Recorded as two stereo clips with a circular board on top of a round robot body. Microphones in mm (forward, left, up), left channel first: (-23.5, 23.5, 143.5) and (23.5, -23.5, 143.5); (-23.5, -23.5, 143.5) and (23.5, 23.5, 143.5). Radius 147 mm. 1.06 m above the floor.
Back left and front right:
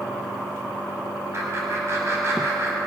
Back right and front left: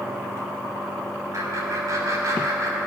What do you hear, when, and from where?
1.3 s laughter: 5° left, 3.5 m